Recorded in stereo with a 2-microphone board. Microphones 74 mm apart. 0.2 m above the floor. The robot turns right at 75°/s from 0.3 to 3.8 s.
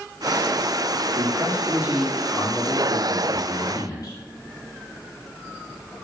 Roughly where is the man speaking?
Right.